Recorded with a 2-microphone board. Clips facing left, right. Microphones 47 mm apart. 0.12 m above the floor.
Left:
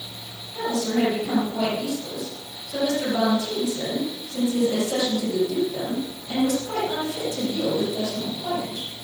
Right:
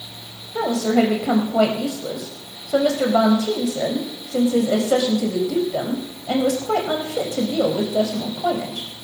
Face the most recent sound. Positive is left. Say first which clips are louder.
# right 5 dB
turn(degrees=-65)  # may be behind; listen again after turning